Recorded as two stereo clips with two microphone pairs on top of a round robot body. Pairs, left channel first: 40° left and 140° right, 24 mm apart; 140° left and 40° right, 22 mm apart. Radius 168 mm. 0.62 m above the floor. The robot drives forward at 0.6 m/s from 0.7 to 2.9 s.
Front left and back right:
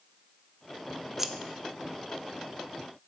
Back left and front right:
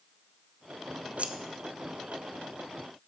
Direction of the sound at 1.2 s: 55° right.